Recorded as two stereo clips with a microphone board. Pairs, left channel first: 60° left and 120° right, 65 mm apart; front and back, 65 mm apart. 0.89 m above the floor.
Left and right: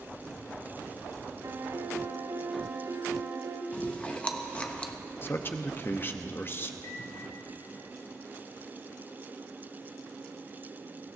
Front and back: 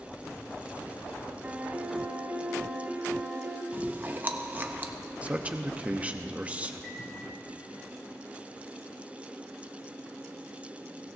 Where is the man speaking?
115° left, 0.8 m.